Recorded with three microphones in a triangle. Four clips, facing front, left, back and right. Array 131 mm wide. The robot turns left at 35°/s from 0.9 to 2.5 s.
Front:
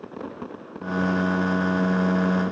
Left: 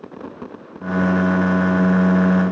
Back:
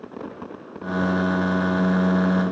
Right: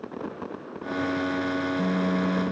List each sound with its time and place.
Only background noise.